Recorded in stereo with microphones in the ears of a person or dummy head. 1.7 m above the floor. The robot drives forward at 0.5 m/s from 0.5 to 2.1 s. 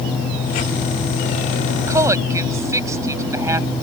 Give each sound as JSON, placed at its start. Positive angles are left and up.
{"t": 1.9, "sound": "a woman speaking", "side_deg": -20}